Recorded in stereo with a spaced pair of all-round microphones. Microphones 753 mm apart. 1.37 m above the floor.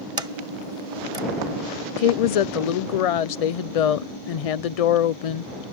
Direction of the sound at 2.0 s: 55° left (ahead or behind).